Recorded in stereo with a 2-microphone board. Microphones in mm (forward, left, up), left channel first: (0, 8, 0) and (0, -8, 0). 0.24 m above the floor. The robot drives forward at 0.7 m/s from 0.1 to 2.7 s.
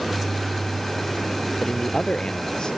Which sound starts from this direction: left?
A man speaking, at 1.6 s.